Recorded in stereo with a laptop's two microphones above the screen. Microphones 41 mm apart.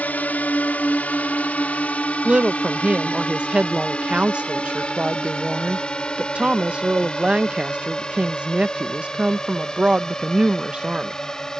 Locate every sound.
0.0 s a drone: 45° left (ahead or behind); by 11.6 s 15° left (ahead or behind)
2.2 s a woman speaking: 25° right (ahead or behind)